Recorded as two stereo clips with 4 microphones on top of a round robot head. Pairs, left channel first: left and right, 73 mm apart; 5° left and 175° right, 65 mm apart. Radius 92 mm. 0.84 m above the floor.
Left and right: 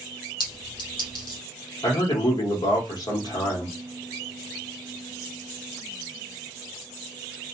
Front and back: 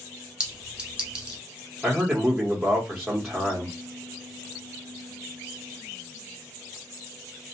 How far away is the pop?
No pop in this recording.